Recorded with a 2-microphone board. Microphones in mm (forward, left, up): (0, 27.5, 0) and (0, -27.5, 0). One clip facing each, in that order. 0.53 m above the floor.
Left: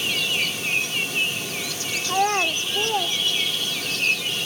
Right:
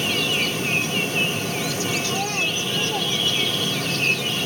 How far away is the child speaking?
About 0.8 m.